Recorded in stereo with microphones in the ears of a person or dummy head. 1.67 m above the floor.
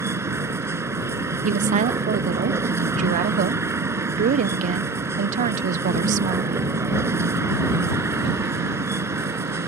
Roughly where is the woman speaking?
Right.